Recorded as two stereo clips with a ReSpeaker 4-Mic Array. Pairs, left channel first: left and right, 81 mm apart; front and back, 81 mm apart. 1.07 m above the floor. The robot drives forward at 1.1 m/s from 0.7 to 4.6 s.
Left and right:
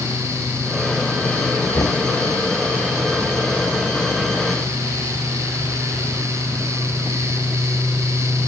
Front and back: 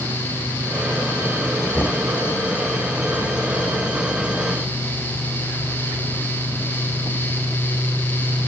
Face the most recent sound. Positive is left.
turn(degrees=70)